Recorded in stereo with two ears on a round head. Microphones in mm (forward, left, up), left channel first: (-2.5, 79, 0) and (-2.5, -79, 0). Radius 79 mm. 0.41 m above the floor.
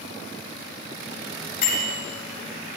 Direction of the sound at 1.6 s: 60° left (ahead or behind).